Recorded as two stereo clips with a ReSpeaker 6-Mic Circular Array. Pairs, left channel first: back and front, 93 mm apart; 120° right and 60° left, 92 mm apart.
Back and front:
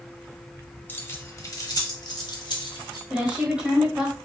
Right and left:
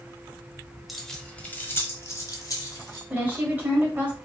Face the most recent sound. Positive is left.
turn(degrees=55)